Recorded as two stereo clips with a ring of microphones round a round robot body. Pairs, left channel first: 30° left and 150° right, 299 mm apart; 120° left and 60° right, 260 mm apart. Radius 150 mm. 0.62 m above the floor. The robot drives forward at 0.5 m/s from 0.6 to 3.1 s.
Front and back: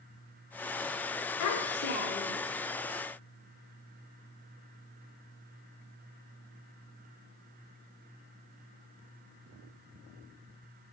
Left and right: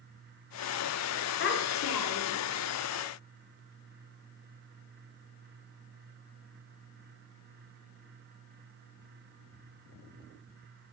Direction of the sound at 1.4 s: 70° left.